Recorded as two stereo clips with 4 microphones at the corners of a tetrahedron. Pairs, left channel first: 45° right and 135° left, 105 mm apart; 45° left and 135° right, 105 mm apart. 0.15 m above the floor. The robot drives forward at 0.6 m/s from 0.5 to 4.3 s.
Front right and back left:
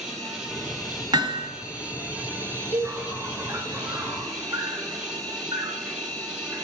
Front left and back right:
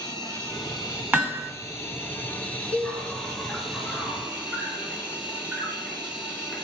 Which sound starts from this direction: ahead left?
An insect, at 0.0 s.